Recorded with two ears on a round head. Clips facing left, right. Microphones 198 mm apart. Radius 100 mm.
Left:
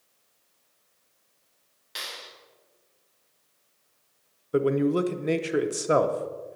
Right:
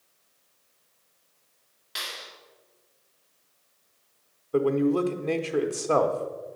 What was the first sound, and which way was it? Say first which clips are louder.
A clap: right 1 dB; centre (ahead or behind).